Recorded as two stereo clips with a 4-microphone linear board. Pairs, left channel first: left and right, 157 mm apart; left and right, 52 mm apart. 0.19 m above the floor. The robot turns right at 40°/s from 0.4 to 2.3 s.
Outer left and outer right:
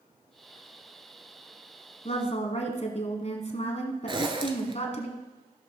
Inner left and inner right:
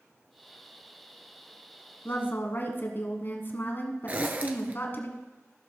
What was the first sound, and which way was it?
A woman speaking, 45° left (ahead or behind).